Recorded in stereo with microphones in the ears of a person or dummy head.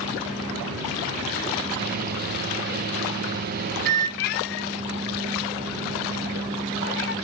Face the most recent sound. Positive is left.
turn(degrees=50)  # may be behind; listen again after turning